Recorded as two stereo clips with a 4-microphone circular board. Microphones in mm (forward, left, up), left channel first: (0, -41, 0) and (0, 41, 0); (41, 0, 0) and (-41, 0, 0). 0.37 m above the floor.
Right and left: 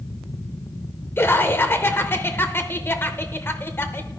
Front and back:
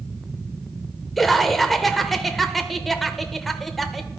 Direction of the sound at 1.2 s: 85° right.